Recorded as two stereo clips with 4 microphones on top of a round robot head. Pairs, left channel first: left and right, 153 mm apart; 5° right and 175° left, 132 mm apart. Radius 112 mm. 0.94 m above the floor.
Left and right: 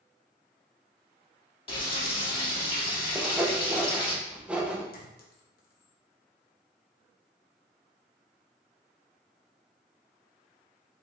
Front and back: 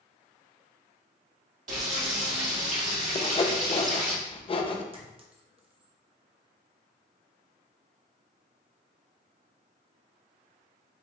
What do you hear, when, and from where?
1.7 s frying: 145° left, 2 m
3.1 s sawing: 10° right, 0.6 m
4.9 s a clink: 125° left, 1.0 m